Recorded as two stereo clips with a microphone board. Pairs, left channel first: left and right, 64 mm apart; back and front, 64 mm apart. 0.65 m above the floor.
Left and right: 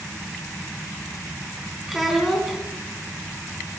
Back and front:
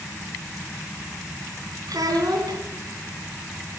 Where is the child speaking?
5° right, 3.5 m.